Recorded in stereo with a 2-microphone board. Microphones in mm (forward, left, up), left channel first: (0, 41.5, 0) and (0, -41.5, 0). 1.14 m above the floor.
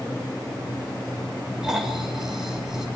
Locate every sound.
1.6 s snoring: 5° right (ahead or behind), 5.5 m